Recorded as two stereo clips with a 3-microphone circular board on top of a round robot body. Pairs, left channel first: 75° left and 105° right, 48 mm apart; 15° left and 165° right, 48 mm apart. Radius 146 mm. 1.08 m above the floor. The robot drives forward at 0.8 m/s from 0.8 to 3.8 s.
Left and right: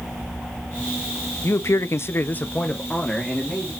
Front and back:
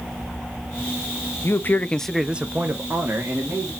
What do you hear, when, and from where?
1.4 s a man speaking: 45° left, 0.7 m; by 3.7 s 165° left, 1.5 m